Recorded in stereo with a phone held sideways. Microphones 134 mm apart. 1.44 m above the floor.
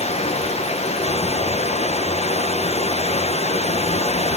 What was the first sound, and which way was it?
Running water, 50° left (ahead or behind).